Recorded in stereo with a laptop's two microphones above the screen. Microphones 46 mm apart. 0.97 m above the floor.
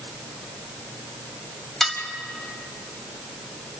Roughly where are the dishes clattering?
Centre.